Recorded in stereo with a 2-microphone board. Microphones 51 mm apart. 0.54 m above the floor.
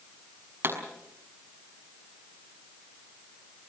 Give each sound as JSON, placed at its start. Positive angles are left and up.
{"t": 0.6, "sound": "a pop", "side_deg": -50, "distance_m": 5.5}